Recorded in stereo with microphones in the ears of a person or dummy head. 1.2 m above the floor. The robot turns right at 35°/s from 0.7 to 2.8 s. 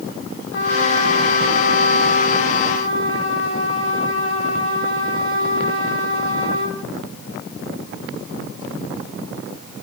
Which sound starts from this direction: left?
A trumpet, at 0.5 s.